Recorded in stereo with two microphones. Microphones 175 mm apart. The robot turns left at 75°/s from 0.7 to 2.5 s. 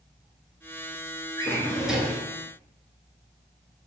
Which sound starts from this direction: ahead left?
A drawer, at 1.4 s.